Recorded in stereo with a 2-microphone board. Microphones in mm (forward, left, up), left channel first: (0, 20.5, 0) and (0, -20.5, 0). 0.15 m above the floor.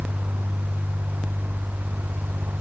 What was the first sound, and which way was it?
Only background noise.